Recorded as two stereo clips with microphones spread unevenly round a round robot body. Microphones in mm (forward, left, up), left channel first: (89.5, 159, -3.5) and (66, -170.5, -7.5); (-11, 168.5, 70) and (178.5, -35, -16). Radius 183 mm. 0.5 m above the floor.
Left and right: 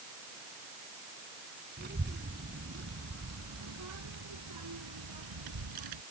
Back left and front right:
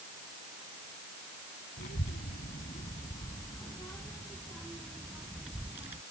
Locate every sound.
1.8 s a child speaking: 160° right; by 6.0 s 130° right